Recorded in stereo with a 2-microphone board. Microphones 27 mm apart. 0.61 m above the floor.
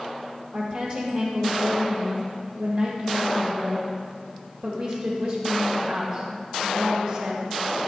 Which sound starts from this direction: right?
A woman speaking, at 0.5 s.